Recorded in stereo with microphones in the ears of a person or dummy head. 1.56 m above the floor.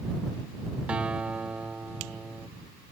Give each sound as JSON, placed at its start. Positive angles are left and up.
{"t": 0.9, "sound": "a guitar", "side_deg": -5}